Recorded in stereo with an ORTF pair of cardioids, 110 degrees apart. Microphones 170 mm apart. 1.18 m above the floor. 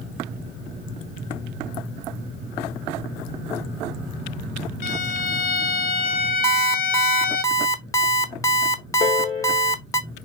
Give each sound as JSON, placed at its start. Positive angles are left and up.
{"t": 4.8, "sound": "a violin", "azimuth_deg": 60, "distance_m": 0.7}
{"t": 6.4, "sound": "an alarm clock", "azimuth_deg": 20, "distance_m": 0.7}
{"t": 9.0, "sound": "a piano", "azimuth_deg": 65, "distance_m": 4.0}